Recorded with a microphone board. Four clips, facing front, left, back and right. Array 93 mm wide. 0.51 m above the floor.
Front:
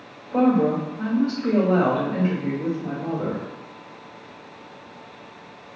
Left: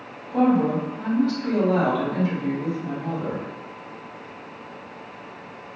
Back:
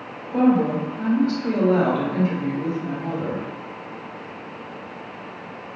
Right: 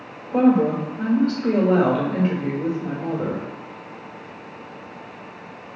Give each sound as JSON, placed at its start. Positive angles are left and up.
{"t": 0.3, "sound": "a woman speaking", "azimuth_deg": -85, "distance_m": 1.5}